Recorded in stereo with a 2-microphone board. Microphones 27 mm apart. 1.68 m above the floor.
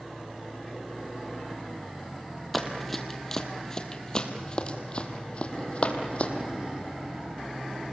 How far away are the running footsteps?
About 2 m.